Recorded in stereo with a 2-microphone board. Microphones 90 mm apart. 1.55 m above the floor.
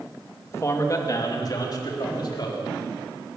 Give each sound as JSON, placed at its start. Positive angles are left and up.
{"t": 0.5, "sound": "a man speaking", "side_deg": 30, "distance_m": 2.5}